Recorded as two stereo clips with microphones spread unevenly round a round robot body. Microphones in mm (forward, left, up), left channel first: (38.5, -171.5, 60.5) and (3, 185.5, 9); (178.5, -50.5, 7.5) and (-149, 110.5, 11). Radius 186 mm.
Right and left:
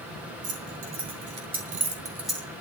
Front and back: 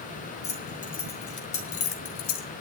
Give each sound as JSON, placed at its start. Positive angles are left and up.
{"t": 0.4, "sound": "keys jangling", "azimuth_deg": 45, "distance_m": 4.0}